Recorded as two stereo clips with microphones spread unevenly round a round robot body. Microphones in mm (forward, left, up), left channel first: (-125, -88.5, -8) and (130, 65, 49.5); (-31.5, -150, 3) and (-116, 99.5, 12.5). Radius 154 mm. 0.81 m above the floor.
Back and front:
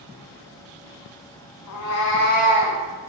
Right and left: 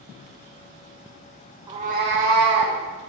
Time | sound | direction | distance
1.7 | a cat meowing | 175° right | 1.4 m